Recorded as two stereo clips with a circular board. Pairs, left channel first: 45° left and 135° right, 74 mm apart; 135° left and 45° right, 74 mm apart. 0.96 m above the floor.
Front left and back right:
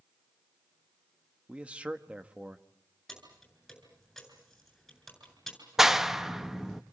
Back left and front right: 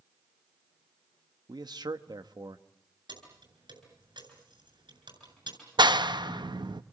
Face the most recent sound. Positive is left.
turn(degrees=-50)